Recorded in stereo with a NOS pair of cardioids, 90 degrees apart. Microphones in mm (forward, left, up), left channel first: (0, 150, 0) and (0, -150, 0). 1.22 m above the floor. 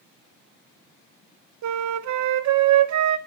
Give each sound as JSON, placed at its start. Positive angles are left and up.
{"t": 1.6, "sound": "a flute", "azimuth_deg": -70, "distance_m": 1.1}